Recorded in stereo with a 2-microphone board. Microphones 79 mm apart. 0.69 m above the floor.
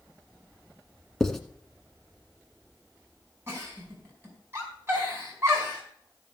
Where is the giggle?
30° right (ahead or behind), 4.5 m.